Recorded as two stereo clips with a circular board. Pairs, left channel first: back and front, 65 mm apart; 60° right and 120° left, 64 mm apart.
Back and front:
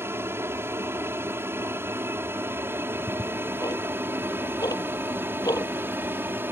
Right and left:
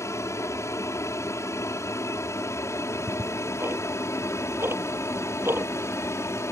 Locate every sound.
0.0 s an aircraft: 40° right; by 6.5 s 45° right
2.9 s ticking: 170° left